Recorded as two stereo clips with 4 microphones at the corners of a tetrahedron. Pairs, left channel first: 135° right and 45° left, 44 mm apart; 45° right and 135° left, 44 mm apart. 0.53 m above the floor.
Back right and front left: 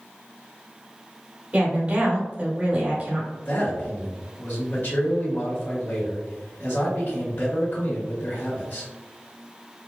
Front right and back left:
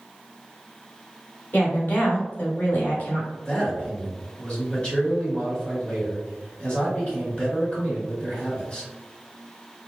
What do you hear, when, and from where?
1.5 s a woman speaking: 5° right, 1.5 m
3.5 s a man speaking: 105° right, 1.6 m